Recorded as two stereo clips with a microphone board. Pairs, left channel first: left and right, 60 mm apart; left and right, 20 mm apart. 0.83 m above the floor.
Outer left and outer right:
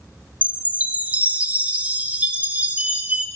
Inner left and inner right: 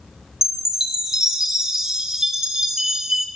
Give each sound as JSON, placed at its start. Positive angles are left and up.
{"t": 0.4, "sound": "a chime", "side_deg": -25, "distance_m": 0.6}